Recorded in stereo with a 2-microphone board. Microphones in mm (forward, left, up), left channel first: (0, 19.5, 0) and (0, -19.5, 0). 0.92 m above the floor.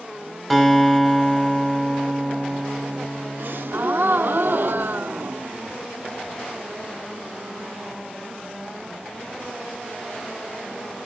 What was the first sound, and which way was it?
A guitar, centre (ahead or behind).